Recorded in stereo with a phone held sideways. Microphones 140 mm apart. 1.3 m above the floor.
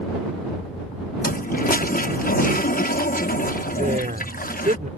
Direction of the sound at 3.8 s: 70° right (ahead or behind).